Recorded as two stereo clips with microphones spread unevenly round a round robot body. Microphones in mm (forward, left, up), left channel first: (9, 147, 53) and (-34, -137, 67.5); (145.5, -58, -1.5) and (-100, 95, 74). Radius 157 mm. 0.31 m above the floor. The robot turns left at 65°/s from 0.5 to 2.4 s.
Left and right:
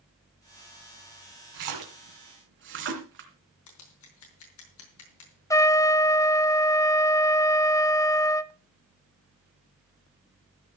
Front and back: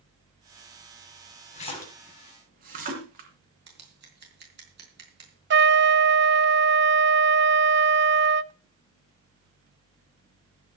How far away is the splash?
About 3.5 m.